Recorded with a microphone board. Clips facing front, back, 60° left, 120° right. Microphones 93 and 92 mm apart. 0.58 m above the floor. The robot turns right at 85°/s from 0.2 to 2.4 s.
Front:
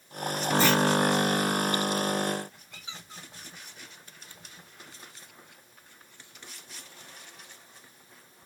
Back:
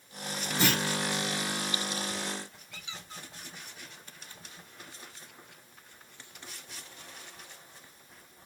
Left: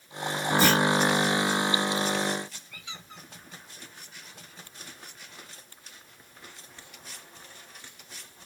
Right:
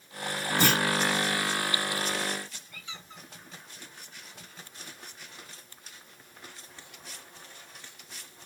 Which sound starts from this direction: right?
A clunk, at 0.6 s.